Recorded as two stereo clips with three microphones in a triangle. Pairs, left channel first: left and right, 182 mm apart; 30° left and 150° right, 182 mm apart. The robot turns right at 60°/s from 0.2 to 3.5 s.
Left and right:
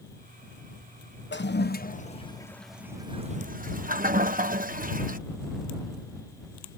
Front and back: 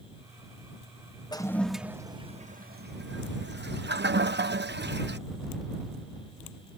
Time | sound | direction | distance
1.3 | a toilet flushing | 95° left | ?